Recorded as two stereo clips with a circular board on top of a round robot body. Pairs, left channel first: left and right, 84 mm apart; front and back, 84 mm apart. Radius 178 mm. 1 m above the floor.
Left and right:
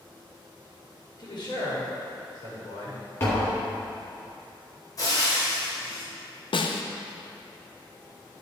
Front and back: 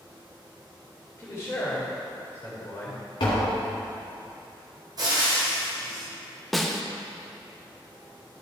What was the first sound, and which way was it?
A man speaking, 55° left.